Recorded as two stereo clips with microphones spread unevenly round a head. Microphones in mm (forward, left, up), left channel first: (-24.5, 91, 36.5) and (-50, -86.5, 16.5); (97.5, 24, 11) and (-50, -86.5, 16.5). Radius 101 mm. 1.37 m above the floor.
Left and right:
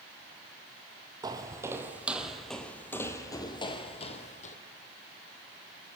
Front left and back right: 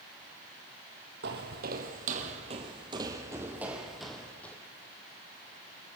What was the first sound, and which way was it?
Footsteps, 170° right.